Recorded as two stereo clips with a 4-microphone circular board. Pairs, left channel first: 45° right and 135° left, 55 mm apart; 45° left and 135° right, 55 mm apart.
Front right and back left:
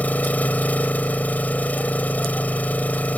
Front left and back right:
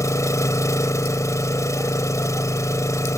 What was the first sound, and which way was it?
An engine running, 15° left.